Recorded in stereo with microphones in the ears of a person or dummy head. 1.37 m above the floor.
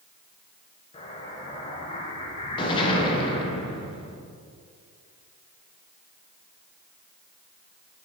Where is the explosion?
25° left (ahead or behind), 0.9 m.